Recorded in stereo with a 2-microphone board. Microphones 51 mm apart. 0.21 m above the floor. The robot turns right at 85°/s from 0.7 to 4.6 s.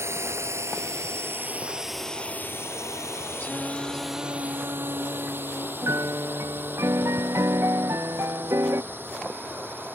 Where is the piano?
75° right (ahead or behind).